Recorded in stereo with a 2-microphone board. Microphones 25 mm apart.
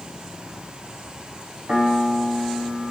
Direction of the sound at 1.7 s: 65° right (ahead or behind).